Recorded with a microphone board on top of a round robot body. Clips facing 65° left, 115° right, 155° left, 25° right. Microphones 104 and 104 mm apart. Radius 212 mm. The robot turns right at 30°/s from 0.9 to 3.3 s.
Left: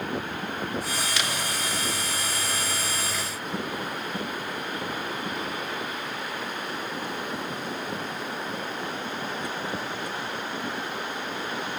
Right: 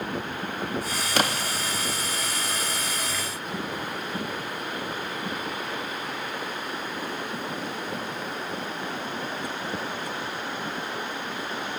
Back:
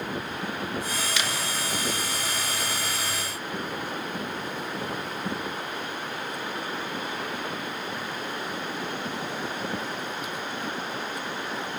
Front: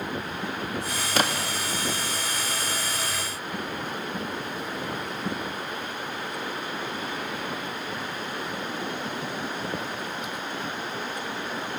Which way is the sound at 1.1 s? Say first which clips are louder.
Right 4 dB, front 4 dB; 70° right.